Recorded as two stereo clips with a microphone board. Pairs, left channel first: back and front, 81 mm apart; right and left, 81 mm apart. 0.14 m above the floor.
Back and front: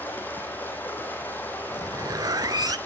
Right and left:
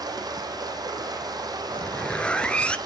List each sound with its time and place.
0.0 s running water: 115° left, 3.5 m
1.7 s a zipper: 20° right, 0.6 m